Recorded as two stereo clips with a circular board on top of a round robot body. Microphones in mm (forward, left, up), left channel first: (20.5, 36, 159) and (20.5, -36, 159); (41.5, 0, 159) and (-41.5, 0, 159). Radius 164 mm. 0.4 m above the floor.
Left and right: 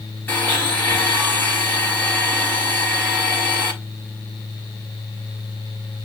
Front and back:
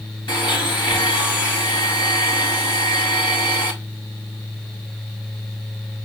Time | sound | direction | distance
0.3 | a blender | 25° left | 4.5 m